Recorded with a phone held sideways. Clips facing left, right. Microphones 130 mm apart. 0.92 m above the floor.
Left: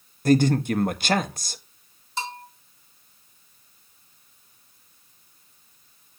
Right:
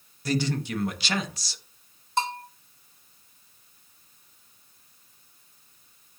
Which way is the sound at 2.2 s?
55° right (ahead or behind).